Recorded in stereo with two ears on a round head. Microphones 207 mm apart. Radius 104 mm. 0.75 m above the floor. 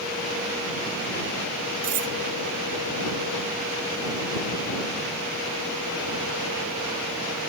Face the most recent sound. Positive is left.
turn(degrees=-85)